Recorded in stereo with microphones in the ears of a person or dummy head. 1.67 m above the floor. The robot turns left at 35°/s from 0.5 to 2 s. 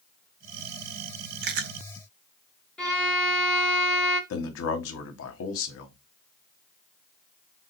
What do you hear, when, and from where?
1.4 s chewing: 55° right (ahead or behind), 0.6 m; by 1.7 s 50° right (ahead or behind), 0.6 m
2.8 s a violin: 5° left (ahead or behind), 1.0 m
4.3 s a man speaking: 70° left (ahead or behind), 1.1 m